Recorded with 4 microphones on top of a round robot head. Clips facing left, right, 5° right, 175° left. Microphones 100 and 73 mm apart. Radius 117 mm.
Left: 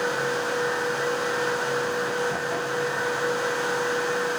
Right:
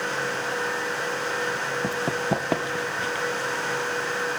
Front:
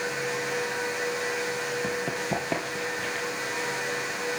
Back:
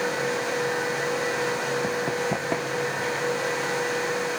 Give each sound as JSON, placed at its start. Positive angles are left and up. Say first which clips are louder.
{"t": 1.8, "sound": "running footsteps", "louder": "even, back 4 dB", "azimuth_deg": -105, "distance_m": 2.5}